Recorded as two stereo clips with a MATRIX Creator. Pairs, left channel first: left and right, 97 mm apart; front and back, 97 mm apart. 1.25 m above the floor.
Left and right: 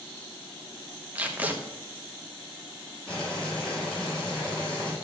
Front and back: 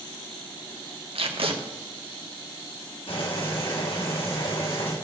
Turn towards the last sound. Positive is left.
turn(degrees=10)